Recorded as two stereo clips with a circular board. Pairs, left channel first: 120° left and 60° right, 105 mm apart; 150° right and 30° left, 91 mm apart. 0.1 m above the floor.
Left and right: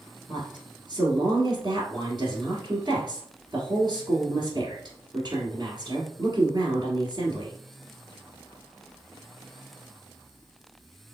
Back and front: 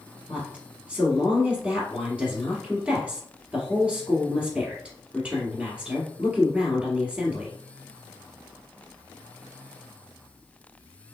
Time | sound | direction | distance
0.3 | a woman speaking | 40° right | 1.9 m